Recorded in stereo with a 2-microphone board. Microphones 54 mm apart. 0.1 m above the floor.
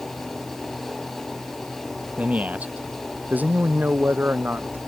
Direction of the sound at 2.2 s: 25° right (ahead or behind).